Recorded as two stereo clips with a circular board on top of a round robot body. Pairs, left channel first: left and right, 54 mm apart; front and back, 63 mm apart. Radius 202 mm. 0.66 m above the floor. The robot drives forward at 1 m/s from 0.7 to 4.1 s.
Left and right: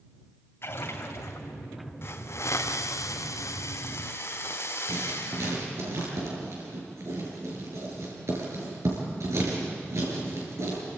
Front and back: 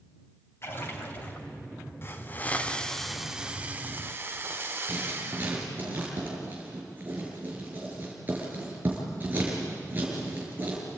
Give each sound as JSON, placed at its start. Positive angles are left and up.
{"t": 0.6, "sound": "a splash", "azimuth_deg": 50, "distance_m": 3.0}
{"t": 2.0, "sound": "a hiss", "azimuth_deg": 50, "distance_m": 1.7}
{"t": 4.9, "sound": "writing", "azimuth_deg": -120, "distance_m": 6.0}